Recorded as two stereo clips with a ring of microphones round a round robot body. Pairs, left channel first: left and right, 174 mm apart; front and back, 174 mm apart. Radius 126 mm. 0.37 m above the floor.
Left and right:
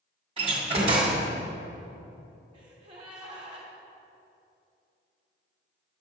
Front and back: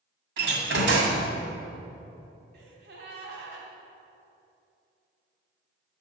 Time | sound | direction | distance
0.4 | a door slam | 155° right | 1.8 m
2.5 | a gasp | 155° right | 2 m